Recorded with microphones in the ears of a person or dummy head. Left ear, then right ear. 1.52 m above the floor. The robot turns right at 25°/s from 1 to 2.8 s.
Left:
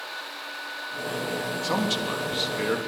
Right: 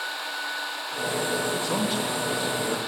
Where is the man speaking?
10° left (ahead or behind), 3 m; by 2.8 s 35° left (ahead or behind), 3 m.